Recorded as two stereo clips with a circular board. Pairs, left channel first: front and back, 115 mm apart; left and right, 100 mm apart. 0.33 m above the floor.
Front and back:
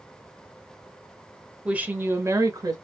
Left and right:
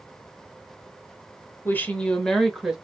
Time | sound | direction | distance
1.6 | a woman speaking | 115° left | 0.9 m